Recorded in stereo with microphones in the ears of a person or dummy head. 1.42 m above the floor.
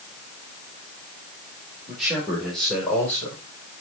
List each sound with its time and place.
1.9 s a man speaking: 5° right (ahead or behind), 3.5 m; by 3.4 s 10° left (ahead or behind), 4.5 m